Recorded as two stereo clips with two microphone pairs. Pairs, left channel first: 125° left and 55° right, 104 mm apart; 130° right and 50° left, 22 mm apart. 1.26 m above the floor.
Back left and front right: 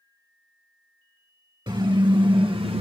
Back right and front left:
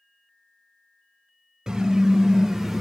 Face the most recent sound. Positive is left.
turn(degrees=-40)